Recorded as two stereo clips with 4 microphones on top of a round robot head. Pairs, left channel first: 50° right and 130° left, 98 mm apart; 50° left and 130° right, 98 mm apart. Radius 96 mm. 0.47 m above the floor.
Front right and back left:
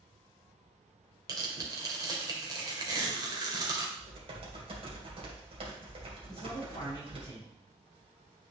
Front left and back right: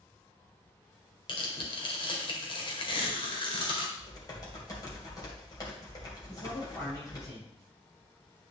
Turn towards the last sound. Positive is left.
turn(degrees=-5)